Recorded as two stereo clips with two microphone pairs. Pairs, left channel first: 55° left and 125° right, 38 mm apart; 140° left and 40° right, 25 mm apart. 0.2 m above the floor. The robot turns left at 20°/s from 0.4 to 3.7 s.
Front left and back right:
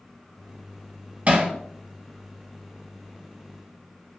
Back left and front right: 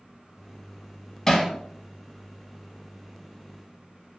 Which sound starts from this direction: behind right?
Hammering, at 1.3 s.